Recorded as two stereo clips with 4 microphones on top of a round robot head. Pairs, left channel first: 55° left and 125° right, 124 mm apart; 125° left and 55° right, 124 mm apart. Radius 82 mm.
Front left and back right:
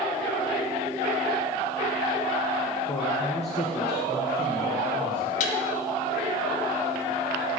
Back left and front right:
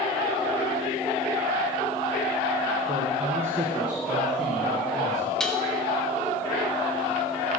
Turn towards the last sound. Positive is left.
turn(degrees=40)